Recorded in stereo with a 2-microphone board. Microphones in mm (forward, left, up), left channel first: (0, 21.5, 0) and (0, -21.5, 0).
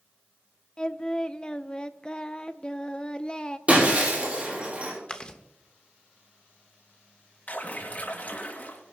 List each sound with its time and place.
0.8 s singing: 25° left (ahead or behind), 0.6 m
3.7 s breaking glass: 35° right (ahead or behind), 5.5 m
5.1 s chewing: 25° left (ahead or behind), 1.1 m
7.5 s a splash: 45° left (ahead or behind), 3 m